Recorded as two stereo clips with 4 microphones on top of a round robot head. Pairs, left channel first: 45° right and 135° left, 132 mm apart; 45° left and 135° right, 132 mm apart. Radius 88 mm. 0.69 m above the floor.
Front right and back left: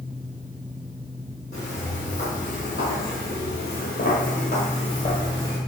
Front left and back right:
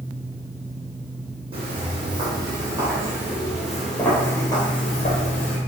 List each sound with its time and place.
1.5 s footsteps: 85° right, 2 m; by 5.6 s 20° left, 1.3 m